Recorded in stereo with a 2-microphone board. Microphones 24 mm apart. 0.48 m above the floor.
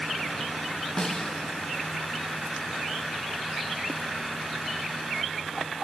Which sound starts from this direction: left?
A snare drum, at 1.0 s.